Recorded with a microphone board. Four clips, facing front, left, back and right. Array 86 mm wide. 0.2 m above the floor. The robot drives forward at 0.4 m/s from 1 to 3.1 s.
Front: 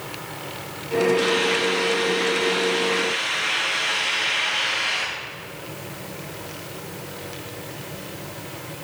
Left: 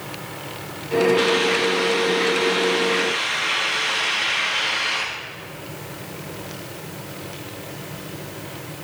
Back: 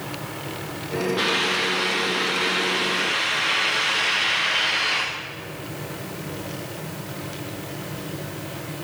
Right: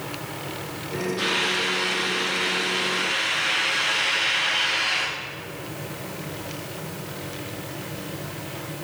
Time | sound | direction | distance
1.2 | a hiss | 125° left | 6 m